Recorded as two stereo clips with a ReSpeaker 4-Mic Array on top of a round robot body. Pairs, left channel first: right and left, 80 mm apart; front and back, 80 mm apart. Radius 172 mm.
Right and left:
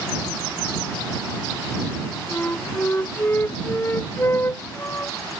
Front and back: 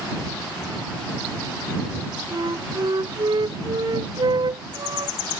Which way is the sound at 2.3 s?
150° right.